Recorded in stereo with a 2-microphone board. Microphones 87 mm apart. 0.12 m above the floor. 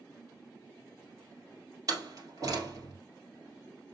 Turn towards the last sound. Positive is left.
turn(degrees=-45)  # may be behind; listen again after turning